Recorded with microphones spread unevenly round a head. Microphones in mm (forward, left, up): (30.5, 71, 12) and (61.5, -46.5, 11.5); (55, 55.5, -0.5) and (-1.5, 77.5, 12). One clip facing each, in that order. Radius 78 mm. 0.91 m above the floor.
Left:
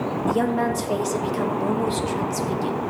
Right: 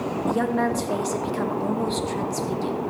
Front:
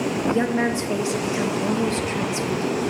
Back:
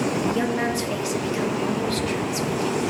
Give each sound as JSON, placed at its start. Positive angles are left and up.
{"t": 0.3, "sound": "a woman speaking", "azimuth_deg": 25, "distance_m": 1.1}